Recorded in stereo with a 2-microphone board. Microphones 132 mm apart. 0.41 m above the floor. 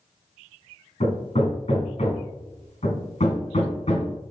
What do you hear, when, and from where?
1.0 s hammering: 60° left (ahead or behind), 3 m